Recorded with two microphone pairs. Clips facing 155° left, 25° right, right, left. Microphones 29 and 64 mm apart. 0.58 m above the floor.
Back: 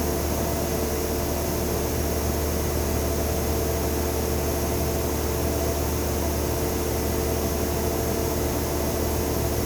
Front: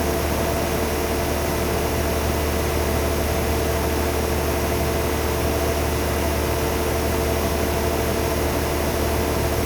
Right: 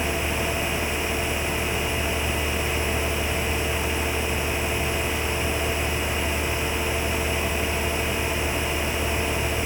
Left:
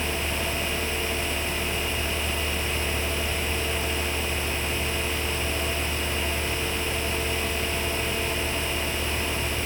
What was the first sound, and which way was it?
Only background noise.